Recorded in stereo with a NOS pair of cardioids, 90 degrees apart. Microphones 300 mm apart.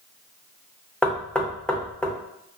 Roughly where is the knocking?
Ahead.